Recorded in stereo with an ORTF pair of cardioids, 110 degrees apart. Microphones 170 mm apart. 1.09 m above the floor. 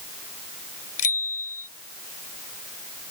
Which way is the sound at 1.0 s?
55° left.